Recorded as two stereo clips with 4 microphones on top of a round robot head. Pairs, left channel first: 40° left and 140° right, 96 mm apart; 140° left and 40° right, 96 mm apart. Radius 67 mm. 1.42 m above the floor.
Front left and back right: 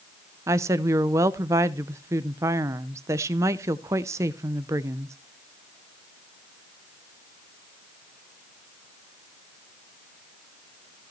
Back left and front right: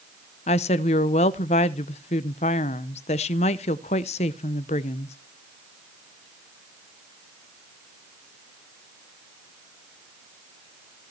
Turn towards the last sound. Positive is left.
turn(degrees=155)